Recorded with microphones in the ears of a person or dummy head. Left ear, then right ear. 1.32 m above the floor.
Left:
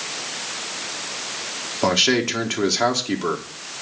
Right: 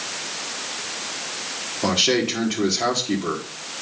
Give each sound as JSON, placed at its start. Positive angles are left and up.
{"t": 1.8, "sound": "a man speaking", "side_deg": 45, "distance_m": 1.6}